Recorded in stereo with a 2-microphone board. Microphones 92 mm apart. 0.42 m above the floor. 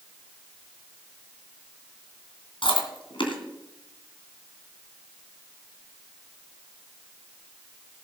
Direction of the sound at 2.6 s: 80° left.